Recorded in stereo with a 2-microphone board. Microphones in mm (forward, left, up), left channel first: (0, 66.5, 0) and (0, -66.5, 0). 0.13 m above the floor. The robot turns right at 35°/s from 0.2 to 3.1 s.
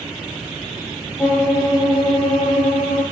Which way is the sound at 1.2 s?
15° left.